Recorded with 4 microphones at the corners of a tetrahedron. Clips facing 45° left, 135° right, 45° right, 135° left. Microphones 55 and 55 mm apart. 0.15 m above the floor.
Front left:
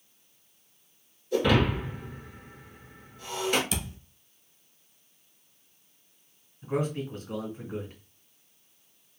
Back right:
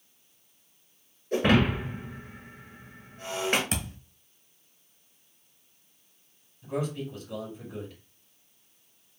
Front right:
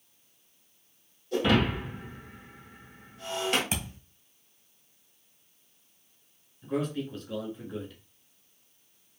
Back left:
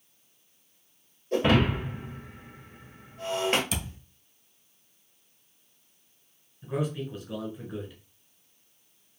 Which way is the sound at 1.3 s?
175° right.